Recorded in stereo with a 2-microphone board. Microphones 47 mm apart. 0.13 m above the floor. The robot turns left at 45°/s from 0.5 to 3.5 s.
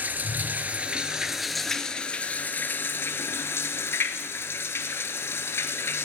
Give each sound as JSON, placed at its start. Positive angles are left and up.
{"t": 0.0, "sound": "running water", "azimuth_deg": -135, "distance_m": 0.8}